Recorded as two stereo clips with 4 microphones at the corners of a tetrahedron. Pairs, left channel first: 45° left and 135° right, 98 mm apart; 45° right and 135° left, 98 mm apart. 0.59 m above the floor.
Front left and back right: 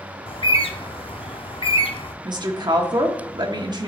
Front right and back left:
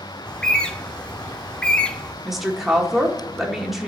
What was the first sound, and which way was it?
A bird, 35° left.